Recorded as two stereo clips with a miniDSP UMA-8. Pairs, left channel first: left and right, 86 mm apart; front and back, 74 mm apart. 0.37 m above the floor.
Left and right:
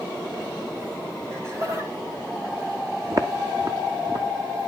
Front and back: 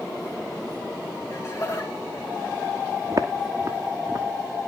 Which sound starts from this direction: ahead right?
Laughter, at 1.3 s.